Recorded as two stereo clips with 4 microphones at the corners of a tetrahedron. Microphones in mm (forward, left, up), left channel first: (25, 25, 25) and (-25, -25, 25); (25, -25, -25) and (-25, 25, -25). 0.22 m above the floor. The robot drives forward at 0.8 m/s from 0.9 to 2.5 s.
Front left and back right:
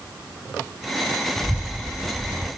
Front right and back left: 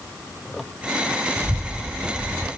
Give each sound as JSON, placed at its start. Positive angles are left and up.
{"t": 1.4, "sound": "a child speaking", "azimuth_deg": 120, "distance_m": 0.5}